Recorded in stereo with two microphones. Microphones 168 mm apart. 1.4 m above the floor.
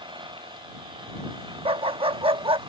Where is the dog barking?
35° right (ahead or behind).